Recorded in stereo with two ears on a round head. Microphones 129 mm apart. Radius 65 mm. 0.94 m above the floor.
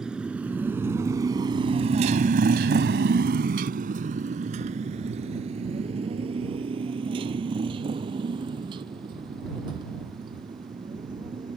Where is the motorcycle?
5° right (ahead or behind); by 11.6 s 30° right (ahead or behind).